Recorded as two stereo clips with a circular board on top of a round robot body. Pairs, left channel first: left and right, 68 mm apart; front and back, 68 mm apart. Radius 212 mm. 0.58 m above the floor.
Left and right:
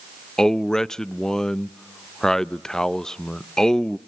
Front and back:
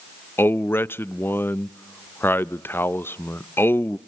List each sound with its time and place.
0.4 s a man speaking: 15° left, 0.6 m